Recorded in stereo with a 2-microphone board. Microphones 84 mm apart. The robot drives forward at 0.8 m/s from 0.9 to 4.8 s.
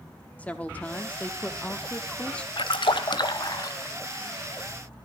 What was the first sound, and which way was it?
A woman speaking, 20° left (ahead or behind).